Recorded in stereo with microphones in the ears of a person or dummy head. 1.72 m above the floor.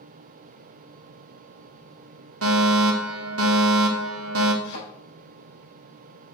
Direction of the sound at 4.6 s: 65° left (ahead or behind).